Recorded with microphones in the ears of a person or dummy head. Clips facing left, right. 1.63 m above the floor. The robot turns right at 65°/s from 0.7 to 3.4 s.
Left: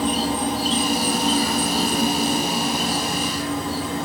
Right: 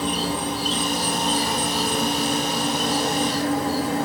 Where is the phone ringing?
No phone ringing in this recording.